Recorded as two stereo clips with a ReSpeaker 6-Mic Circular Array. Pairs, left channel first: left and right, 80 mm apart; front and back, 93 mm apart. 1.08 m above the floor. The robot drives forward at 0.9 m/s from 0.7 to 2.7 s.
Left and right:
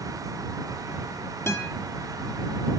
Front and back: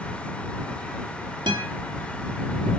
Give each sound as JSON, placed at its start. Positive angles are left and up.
{"t": 1.5, "sound": "a guitar", "azimuth_deg": 145, "distance_m": 2.0}